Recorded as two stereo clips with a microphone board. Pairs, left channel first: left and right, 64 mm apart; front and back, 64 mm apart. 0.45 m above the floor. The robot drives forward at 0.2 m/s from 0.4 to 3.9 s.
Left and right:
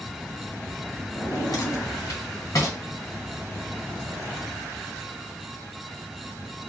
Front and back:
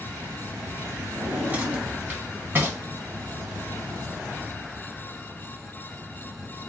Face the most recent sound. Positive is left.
turn(degrees=135)